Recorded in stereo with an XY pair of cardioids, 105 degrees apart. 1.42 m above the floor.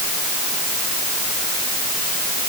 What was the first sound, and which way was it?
Only background noise.